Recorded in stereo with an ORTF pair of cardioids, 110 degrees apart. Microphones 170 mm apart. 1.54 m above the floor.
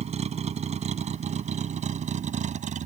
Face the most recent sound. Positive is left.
turn(degrees=-50)